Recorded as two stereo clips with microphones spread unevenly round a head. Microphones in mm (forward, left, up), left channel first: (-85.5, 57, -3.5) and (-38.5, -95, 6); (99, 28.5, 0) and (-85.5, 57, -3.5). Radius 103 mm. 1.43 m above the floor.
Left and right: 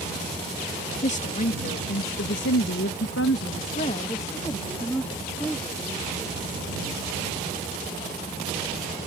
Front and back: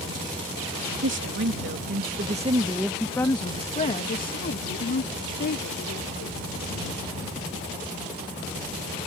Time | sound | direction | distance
1.0 | a woman speaking | 155° left | ?